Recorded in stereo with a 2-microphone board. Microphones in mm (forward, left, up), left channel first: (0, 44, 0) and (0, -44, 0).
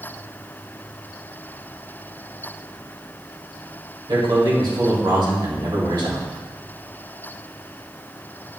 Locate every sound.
4.1 s a man speaking: 60° right (ahead or behind), 2 m